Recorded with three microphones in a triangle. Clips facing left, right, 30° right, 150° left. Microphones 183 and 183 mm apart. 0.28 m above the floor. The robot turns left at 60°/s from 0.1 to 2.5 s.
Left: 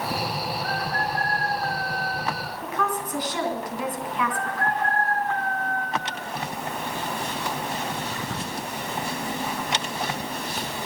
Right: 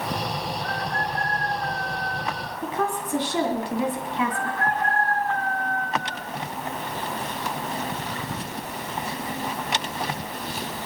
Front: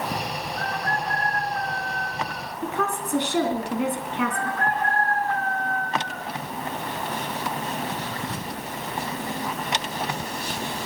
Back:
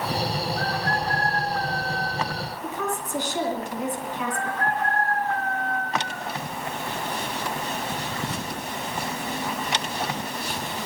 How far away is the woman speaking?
About 3 m.